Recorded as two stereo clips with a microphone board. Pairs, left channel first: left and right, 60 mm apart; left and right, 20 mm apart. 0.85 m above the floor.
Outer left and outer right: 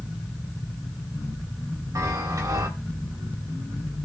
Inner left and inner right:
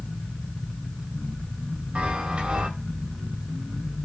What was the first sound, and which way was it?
A chime, 70° right (ahead or behind).